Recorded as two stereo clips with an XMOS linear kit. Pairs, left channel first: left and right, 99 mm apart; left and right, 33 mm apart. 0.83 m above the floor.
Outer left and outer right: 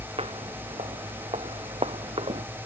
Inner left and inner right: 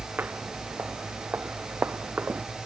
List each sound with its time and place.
0.2 s footsteps: 80° right; by 2.5 s 75° right (ahead or behind)